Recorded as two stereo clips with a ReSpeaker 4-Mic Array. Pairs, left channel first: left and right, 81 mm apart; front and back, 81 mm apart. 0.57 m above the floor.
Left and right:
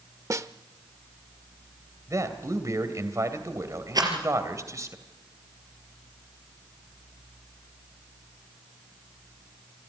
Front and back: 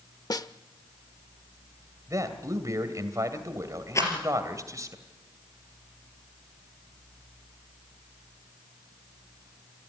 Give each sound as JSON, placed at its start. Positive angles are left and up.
{"t": 0.3, "sound": "a snare drum", "azimuth_deg": -40, "distance_m": 0.7}
{"t": 2.1, "sound": "a man speaking", "azimuth_deg": -135, "distance_m": 2.5}
{"t": 4.0, "sound": "a rattle", "azimuth_deg": -55, "distance_m": 4.0}